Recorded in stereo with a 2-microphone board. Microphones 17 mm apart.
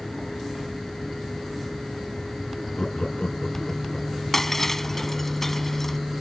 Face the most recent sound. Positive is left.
turn(degrees=15)  # may be behind; listen again after turning